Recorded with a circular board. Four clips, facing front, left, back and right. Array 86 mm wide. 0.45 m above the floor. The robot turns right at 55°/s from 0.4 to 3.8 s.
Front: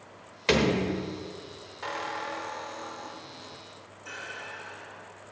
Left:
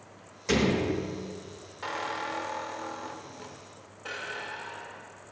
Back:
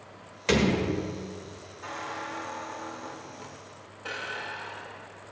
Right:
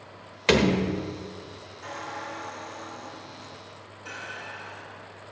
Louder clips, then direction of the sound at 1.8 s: Left 3 dB, front 2 dB; 45° left.